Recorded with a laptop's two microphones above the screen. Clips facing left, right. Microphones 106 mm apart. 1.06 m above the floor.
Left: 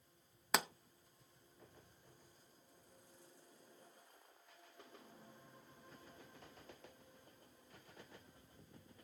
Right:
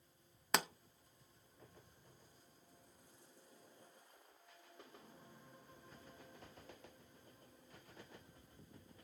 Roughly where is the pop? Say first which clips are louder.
Even; centre.